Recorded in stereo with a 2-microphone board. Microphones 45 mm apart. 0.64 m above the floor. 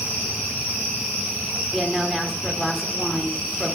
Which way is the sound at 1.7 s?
10° left (ahead or behind).